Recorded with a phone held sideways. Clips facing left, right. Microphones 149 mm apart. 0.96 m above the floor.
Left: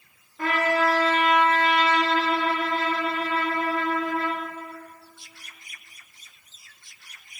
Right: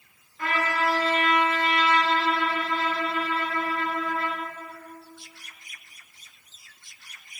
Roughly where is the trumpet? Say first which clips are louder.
Left 4 dB; left.